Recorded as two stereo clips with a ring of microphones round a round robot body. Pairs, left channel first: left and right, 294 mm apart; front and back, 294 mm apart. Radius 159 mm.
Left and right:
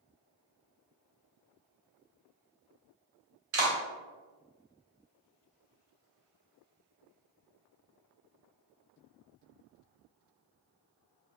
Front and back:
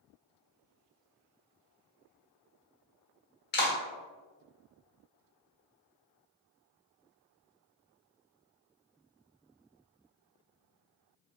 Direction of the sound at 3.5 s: 50° right.